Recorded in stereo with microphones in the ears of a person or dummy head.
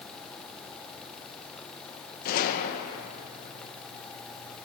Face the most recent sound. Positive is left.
turn(degrees=50)  # may be behind; listen again after turning